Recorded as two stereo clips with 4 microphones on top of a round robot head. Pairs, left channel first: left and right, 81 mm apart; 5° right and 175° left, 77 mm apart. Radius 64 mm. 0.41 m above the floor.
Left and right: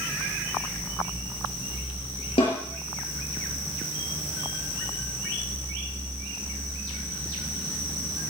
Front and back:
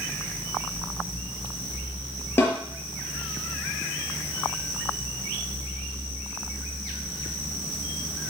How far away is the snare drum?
About 5 m.